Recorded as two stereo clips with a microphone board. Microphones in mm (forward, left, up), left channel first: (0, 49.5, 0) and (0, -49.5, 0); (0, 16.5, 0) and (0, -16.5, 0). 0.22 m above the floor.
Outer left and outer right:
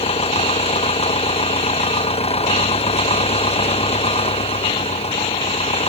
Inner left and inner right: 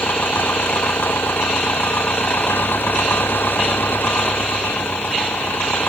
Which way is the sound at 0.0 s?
90° left.